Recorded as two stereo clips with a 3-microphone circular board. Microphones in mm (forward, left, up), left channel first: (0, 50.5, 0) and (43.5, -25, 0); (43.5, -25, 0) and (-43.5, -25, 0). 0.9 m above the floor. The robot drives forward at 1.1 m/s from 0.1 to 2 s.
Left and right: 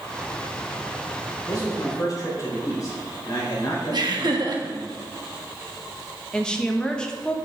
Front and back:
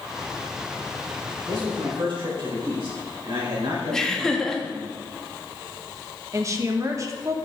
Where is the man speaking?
165° left, 3.5 m.